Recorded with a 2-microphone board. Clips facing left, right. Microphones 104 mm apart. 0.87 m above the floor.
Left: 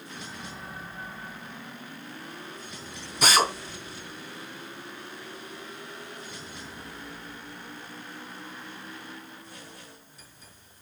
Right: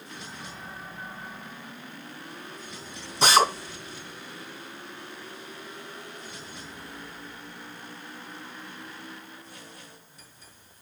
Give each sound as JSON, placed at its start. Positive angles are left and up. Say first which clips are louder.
{"t": 3.2, "sound": "a drill", "louder": "right 3 dB", "side_deg": -30, "distance_m": 3.0}